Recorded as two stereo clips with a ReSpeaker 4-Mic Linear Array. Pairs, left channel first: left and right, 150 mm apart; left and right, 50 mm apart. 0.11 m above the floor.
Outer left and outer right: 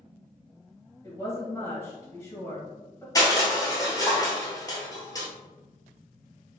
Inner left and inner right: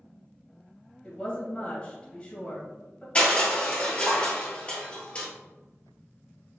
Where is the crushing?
25° left (ahead or behind), 1.3 m.